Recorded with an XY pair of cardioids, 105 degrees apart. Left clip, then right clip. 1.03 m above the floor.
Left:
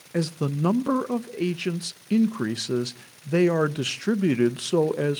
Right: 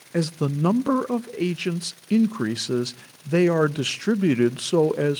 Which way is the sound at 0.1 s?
15° right.